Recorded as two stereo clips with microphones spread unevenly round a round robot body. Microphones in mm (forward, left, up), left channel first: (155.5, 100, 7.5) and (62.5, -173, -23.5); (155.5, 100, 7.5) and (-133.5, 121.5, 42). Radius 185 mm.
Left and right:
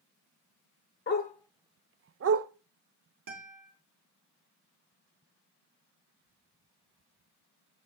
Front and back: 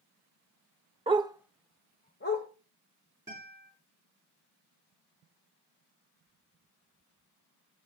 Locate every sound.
1.1 s a dog barking: 115° left, 0.8 m; by 2.5 s 70° right, 1.0 m
3.3 s a guitar: 105° right, 3.5 m